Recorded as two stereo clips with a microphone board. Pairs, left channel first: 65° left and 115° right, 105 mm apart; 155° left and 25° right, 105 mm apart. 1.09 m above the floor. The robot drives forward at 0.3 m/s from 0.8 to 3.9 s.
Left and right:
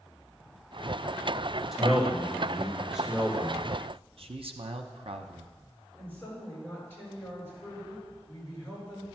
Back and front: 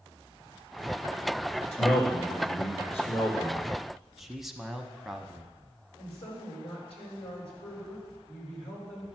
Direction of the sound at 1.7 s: 160° left.